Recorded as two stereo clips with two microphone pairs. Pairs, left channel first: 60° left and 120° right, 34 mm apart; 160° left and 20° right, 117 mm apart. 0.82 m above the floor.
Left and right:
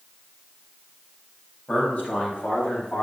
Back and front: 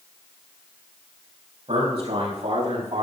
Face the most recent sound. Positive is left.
turn(degrees=15)